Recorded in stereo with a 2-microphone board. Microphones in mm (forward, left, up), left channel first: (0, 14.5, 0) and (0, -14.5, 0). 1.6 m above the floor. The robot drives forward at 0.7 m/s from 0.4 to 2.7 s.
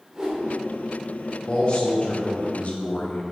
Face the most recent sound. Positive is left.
turn(degrees=45)  # may be behind; listen again after turning